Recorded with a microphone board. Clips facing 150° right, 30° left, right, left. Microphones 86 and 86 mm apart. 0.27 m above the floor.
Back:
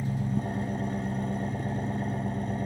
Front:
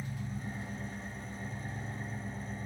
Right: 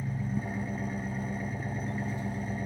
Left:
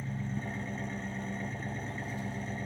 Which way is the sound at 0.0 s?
170° right.